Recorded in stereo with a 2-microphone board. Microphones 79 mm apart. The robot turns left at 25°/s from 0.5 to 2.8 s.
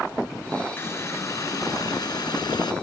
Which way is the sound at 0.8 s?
145° left.